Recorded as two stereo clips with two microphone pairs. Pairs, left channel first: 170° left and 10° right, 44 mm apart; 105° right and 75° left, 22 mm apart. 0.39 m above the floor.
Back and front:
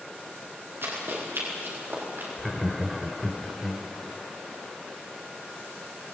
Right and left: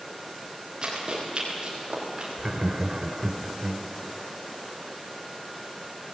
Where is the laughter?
75° left, 1.1 m.